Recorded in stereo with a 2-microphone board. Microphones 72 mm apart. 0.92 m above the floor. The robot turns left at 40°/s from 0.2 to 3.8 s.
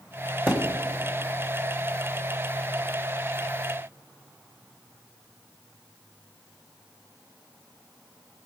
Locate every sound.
0.5 s a thud: 25° right (ahead or behind), 2 m; by 0.8 s 10° right (ahead or behind), 2 m